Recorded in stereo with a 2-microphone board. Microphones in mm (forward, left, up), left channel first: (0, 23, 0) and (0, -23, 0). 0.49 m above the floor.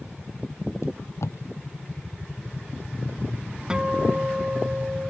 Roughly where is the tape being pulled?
Left.